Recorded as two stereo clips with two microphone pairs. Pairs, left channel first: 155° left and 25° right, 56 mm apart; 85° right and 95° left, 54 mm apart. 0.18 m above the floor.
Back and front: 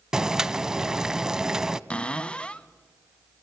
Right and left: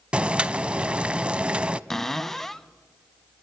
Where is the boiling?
50° left, 0.5 m.